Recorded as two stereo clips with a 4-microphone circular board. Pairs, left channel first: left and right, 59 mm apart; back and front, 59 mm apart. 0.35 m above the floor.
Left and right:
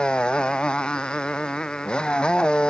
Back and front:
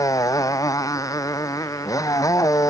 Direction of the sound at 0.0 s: 165° left.